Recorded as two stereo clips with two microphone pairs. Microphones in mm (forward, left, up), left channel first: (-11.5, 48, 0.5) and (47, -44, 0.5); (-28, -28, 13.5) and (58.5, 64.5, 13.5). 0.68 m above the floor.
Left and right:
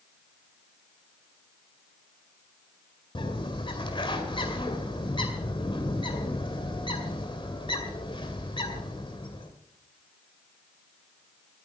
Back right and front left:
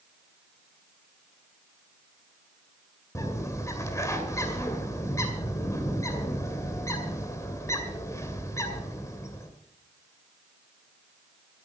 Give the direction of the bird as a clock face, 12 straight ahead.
7 o'clock.